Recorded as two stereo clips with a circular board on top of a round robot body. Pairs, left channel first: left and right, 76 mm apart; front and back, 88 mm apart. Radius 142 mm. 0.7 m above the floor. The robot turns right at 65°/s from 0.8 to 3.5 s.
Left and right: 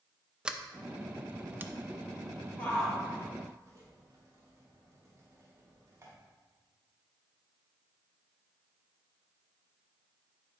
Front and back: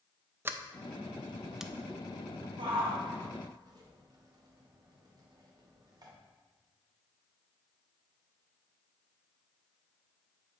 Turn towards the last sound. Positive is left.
turn(degrees=-140)